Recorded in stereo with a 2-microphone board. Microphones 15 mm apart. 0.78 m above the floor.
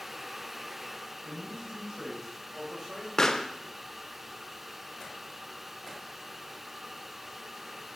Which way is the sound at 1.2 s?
20° right (ahead or behind).